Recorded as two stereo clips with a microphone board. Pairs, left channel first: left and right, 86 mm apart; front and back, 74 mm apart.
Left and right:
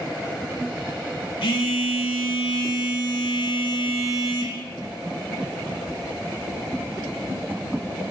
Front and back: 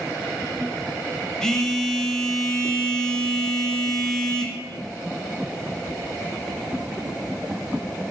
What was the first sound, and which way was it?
A phone buzzing, 80° left.